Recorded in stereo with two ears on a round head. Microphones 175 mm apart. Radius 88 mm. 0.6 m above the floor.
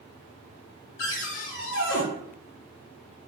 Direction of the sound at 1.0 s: 65° left (ahead or behind).